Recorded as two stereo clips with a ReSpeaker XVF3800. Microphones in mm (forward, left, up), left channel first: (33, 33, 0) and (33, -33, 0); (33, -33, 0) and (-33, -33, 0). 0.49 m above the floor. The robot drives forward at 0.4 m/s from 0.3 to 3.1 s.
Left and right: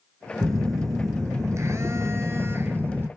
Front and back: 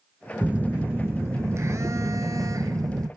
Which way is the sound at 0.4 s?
110° right.